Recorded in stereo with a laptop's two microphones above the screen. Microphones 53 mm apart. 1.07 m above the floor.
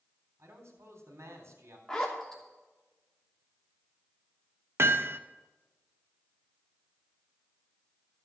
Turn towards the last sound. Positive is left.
turn(degrees=-60)  # may be behind; listen again after turning